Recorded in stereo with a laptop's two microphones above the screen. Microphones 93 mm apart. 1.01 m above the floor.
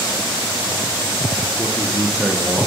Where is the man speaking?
20° left (ahead or behind), 0.9 m; by 2.7 s 20° right (ahead or behind), 1.0 m.